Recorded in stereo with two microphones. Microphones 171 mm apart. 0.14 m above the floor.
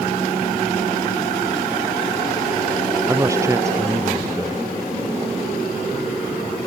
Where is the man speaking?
20° right (ahead or behind).